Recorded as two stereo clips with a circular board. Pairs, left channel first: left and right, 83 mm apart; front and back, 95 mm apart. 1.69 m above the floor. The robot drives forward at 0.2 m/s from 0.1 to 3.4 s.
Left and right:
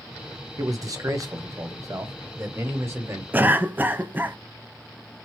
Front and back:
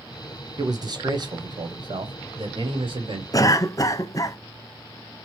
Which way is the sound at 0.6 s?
130° right.